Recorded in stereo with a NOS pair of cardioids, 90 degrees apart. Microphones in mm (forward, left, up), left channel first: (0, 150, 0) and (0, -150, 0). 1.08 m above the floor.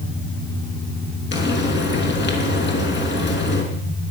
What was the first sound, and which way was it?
Frying, 35° left.